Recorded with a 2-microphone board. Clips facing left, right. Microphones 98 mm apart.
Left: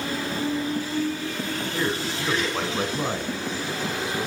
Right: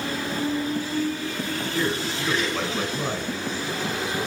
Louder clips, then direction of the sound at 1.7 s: Right 1 dB; 20° left (ahead or behind).